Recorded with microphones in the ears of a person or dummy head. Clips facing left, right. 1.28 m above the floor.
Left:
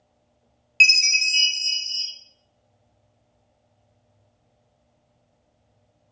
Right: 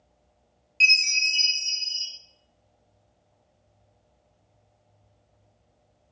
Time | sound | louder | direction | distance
0.8 | a chime | left 3 dB | 65° left (ahead or behind) | 0.9 m